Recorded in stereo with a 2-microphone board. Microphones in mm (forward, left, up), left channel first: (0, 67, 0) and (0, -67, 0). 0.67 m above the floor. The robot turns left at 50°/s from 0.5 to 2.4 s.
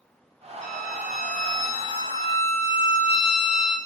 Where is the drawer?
No drawer in this recording.